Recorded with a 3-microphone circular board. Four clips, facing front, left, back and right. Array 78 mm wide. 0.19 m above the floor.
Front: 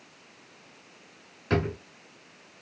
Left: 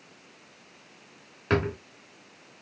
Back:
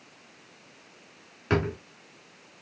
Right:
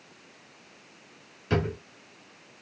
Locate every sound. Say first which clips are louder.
1.5 s a drawer: left 2 dB, back 1 dB; 110° left, 1.1 m